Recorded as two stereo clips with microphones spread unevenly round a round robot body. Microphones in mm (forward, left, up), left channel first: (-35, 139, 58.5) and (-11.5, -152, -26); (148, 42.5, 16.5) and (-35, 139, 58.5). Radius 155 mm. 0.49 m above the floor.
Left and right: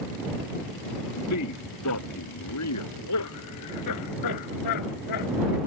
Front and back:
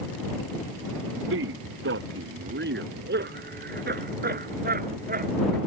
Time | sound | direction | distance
1.0 | a man speaking | 140° left | ?